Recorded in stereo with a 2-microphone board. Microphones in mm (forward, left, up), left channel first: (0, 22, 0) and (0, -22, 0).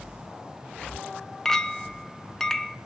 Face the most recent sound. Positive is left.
turn(degrees=10)  # may be behind; listen again after turning